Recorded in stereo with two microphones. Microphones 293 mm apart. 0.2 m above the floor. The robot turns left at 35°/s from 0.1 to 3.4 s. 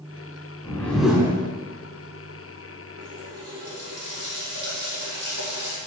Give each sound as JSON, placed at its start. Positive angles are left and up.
{"t": 0.6, "sound": "a whoosh", "side_deg": 10, "distance_m": 3.0}
{"t": 3.0, "sound": "a running tap", "side_deg": -75, "distance_m": 4.5}